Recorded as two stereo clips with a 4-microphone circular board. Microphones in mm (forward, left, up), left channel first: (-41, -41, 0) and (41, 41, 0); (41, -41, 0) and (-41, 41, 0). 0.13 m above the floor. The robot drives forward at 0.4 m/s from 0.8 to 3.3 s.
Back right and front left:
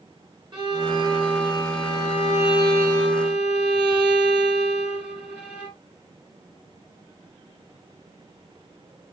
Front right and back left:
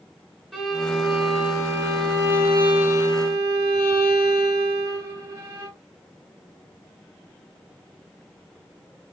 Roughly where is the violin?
Ahead left.